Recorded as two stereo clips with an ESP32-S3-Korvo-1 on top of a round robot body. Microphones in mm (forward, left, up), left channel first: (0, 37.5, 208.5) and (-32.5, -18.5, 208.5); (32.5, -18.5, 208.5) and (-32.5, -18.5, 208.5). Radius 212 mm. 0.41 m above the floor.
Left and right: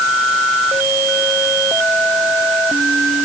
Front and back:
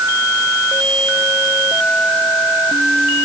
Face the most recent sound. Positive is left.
No sound to turn to.